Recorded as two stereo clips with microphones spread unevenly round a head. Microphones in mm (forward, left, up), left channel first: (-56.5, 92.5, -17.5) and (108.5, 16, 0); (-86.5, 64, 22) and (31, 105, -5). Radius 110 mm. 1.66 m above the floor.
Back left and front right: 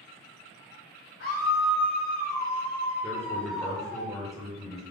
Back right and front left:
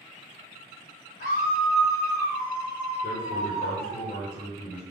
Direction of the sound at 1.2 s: 150° right.